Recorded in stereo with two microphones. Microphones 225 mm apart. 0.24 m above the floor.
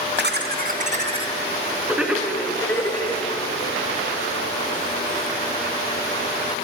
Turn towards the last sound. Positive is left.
turn(degrees=15)  # may be behind; listen again after turning